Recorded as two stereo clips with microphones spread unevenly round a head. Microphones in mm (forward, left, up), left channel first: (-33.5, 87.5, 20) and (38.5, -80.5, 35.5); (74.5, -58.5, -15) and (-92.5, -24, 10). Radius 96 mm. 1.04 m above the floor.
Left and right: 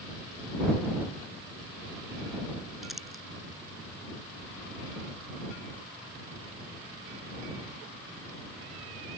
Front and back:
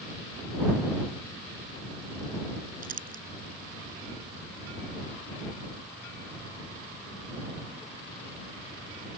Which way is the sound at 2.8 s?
155° right.